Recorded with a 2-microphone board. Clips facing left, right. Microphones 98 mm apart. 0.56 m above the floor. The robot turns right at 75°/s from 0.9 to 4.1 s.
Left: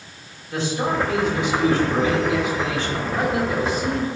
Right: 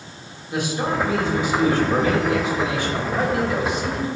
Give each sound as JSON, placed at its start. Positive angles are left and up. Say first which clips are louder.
{"t": 0.5, "sound": "a man speaking", "louder": "even", "azimuth_deg": -165, "distance_m": 1.8}